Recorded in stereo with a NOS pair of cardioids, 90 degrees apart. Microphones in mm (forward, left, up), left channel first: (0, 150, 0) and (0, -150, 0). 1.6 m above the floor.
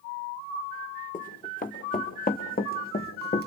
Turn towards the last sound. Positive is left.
turn(degrees=40)